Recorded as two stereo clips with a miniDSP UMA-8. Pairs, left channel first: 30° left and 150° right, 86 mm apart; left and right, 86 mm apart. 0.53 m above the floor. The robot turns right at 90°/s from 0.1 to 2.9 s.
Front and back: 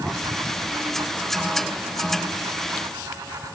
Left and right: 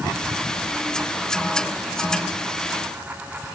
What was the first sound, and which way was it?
Only background noise.